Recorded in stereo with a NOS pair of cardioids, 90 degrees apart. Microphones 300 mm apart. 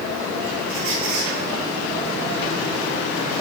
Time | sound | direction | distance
0.7 | a squeak | 70° right | 7.5 m